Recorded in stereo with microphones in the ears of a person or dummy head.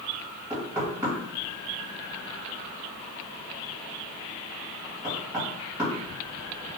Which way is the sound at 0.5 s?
15° right (ahead or behind).